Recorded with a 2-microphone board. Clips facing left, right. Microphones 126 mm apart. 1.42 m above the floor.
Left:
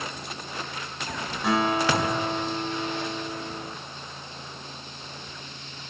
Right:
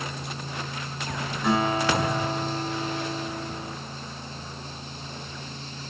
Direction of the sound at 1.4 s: 5° left (ahead or behind).